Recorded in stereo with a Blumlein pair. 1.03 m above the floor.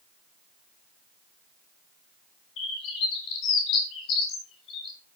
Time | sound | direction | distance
2.6 | a bird | 35° left | 3 m